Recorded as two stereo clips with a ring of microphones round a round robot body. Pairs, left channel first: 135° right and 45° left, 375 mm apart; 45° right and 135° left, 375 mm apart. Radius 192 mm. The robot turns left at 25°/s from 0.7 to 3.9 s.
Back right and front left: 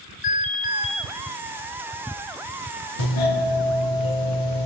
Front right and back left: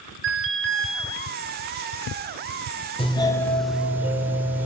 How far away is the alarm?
About 4.5 m.